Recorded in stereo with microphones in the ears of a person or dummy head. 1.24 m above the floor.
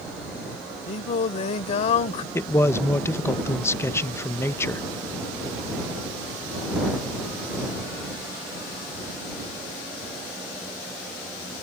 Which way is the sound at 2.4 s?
15° left (ahead or behind).